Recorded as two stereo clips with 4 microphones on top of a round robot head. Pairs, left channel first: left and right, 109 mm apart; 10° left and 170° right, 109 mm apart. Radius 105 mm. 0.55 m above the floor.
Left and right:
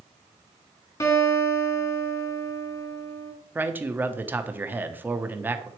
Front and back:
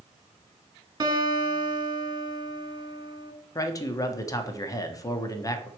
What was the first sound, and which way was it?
A guitar, 140° left.